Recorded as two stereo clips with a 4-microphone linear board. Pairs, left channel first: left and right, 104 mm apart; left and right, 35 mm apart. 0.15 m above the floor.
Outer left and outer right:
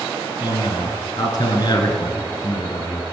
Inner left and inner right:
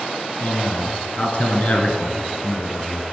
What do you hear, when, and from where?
0.4 s a man speaking: 40° left (ahead or behind), 2 m